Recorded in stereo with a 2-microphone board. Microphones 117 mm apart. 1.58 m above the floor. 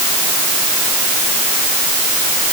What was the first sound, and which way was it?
Only background noise.